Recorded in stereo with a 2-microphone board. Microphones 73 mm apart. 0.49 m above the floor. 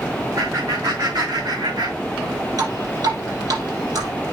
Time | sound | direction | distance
0.4 | laughter | 70° right (ahead or behind) | 3.5 m
2.6 | dripping | 60° right (ahead or behind) | 4 m